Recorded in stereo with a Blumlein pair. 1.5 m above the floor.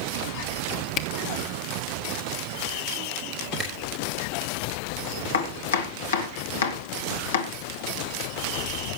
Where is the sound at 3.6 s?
10° right, 5 m.